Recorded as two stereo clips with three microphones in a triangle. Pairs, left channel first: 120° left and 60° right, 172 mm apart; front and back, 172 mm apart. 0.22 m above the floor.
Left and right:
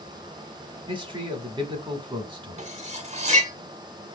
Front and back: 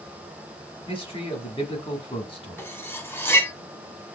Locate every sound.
0.9 s a man speaking: 25° right, 1.3 m
2.6 s cutlery clinking: 70° right, 0.8 m